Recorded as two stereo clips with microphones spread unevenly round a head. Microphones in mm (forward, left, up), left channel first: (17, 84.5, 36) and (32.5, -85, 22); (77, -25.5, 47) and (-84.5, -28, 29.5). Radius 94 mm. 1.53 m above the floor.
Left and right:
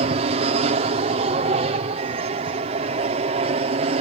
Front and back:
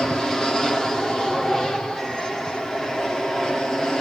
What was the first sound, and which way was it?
An aircraft, 90° right.